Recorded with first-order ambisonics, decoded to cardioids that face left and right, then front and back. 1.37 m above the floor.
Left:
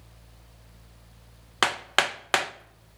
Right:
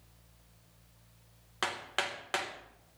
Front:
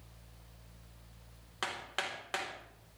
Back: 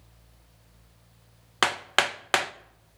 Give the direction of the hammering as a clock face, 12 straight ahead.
7 o'clock.